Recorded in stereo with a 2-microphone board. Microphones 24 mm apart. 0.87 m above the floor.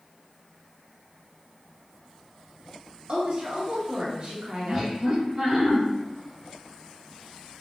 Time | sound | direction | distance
3.1 | a woman speaking | 45° right (ahead or behind) | 0.6 m
4.7 | laughter | 20° right (ahead or behind) | 0.8 m